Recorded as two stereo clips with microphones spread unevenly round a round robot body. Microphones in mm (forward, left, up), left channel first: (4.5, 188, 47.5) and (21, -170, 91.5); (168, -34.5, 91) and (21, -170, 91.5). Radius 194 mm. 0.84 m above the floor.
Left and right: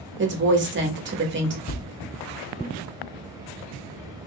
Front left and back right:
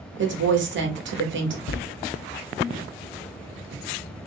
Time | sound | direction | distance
0.2 | a woman speaking | 150° right | 1.2 m
1.7 | a thud | 25° left | 0.6 m